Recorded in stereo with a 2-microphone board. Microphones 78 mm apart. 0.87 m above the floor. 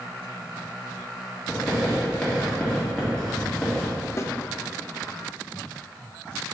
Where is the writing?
15° left (ahead or behind), 2 m.